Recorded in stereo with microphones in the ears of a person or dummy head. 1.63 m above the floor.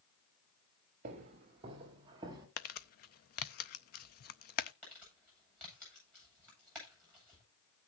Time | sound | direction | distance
1.0 | footsteps | 35° right (ahead or behind) | 2 m
2.6 | crumpling | 55° left (ahead or behind) | 0.6 m
4.8 | crumpling | 5° left (ahead or behind) | 9 m